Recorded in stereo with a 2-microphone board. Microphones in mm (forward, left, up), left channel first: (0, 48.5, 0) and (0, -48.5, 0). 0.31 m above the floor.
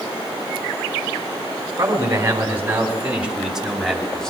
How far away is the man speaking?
About 3 m.